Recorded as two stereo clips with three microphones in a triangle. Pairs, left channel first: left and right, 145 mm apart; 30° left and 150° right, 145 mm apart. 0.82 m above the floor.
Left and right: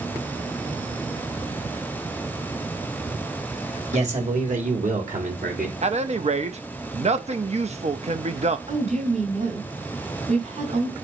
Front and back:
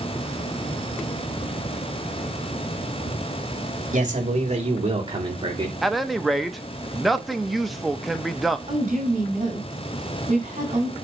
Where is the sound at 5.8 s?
60° right, 0.7 m.